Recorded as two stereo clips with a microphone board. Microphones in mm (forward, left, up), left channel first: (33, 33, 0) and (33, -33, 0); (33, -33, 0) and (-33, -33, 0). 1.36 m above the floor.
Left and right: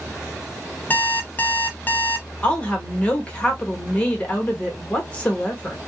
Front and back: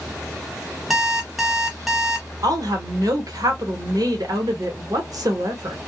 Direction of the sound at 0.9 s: 100° left.